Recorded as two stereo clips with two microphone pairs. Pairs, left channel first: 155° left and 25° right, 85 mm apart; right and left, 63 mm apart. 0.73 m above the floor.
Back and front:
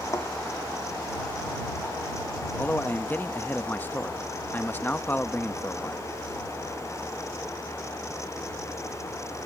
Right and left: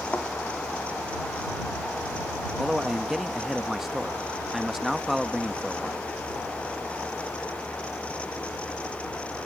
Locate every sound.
0.1 s a thud: 155° right
2.6 s a man speaking: 170° left